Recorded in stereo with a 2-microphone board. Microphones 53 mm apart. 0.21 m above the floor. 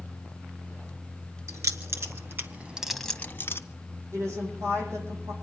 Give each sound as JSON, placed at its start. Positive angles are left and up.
{"t": 1.5, "sound": "keys jangling", "side_deg": -65, "distance_m": 2.5}
{"t": 4.1, "sound": "a woman speaking", "side_deg": -60, "distance_m": 8.5}